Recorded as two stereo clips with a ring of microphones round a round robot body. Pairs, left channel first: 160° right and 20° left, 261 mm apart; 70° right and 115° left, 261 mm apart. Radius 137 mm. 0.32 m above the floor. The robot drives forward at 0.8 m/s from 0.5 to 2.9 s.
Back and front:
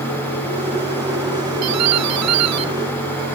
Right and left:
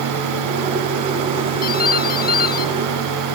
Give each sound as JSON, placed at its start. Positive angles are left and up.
{"t": 1.6, "sound": "a doorbell", "azimuth_deg": -10}